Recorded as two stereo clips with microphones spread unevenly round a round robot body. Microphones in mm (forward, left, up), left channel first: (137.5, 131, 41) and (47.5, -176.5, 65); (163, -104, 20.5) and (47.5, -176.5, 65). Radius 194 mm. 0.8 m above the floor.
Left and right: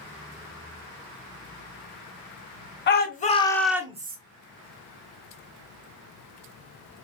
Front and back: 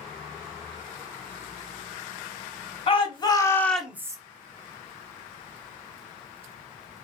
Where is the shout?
25° left, 1.1 m; by 4.2 s 70° right, 0.7 m.